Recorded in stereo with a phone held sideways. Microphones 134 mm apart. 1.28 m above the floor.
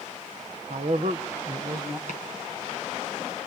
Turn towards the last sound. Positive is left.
turn(degrees=-60)  # may be behind; listen again after turning